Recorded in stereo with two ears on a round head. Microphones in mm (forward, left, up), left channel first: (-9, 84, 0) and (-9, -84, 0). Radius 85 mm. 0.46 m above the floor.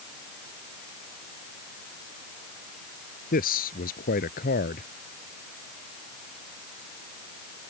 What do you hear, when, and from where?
3.3 s a man speaking: 50° left (ahead or behind)